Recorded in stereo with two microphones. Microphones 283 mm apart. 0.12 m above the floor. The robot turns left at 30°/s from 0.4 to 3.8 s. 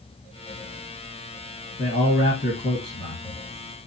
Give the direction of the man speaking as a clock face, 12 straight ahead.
10 o'clock.